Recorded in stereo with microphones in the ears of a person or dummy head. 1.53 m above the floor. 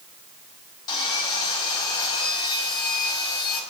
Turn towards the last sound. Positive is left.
turn(degrees=25)  # may be behind; listen again after turning